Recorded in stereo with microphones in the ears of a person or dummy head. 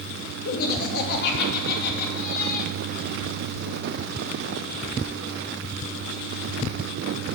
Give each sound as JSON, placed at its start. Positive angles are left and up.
{"t": 0.5, "sound": "laughter", "side_deg": 60, "distance_m": 3.0}